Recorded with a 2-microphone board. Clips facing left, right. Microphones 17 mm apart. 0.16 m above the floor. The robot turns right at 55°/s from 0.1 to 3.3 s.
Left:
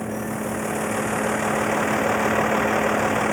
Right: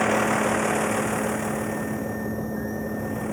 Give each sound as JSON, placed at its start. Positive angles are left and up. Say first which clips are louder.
{"t": 0.0, "sound": "a vehicle", "louder": "right 6 dB", "azimuth_deg": -50}